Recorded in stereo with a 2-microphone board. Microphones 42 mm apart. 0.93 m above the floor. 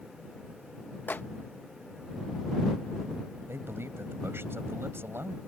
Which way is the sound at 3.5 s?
70° right (ahead or behind).